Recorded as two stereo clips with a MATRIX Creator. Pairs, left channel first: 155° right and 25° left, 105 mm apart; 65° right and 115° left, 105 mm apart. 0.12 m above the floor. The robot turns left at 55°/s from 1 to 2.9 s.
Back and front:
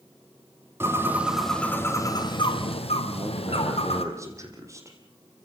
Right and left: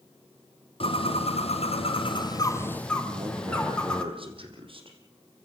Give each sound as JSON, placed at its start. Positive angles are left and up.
{"t": 0.8, "sound": "a bird", "azimuth_deg": -45, "distance_m": 2.0}
{"t": 3.0, "sound": "a man speaking", "azimuth_deg": 85, "distance_m": 5.0}